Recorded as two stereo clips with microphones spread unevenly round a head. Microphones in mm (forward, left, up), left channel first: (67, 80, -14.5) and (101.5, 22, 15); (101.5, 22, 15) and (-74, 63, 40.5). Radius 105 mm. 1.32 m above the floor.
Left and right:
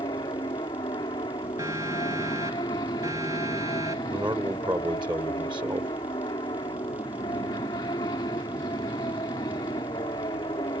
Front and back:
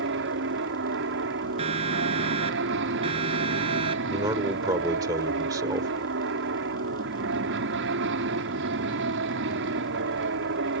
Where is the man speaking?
120° right.